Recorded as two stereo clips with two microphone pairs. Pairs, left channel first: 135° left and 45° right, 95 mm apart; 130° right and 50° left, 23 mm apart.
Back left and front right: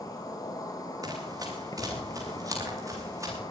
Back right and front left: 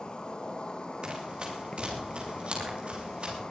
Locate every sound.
0.0 s an insect: 175° right, 3.5 m
1.0 s running footsteps: 5° left, 9 m; by 3.4 s 15° left, 8.5 m